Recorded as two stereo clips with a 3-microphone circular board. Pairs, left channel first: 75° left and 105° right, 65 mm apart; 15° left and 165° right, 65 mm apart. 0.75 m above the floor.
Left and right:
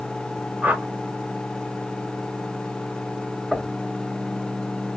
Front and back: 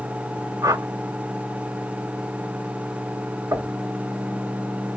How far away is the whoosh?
About 0.7 m.